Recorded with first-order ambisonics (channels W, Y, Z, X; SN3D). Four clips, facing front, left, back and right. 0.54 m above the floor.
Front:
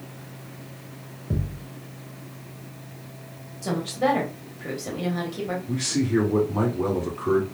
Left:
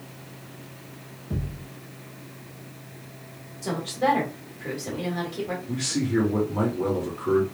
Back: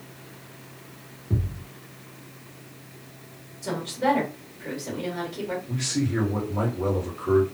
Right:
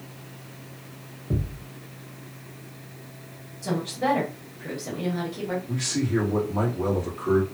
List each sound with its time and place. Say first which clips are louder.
1.3 s a thud: right 3 dB, even; 35° right, 1.5 m
3.6 s a woman speaking: left 1 dB, front 1 dB; 20° left, 1.3 m
5.7 s a man speaking: left 1 dB, front 4 dB; 15° right, 1.7 m